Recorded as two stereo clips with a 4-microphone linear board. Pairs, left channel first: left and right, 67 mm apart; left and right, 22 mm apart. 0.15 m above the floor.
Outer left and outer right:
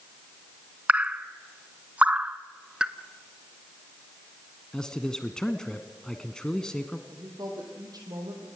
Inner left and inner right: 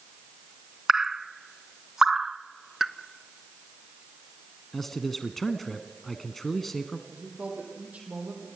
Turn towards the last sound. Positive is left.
turn(degrees=-75)  # may be behind; listen again after turning